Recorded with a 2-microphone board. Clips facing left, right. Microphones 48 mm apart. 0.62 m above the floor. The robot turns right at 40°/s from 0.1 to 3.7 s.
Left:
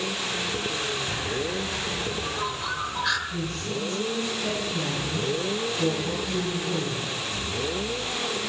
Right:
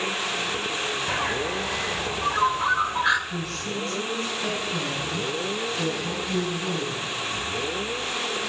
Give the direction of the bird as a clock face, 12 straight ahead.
3 o'clock.